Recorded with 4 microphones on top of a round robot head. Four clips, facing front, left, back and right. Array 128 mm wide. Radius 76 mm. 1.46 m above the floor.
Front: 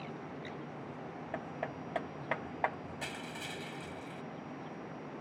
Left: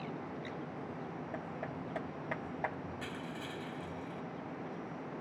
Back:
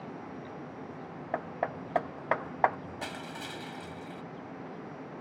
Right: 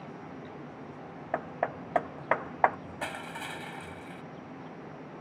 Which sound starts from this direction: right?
Crushing, at 3.0 s.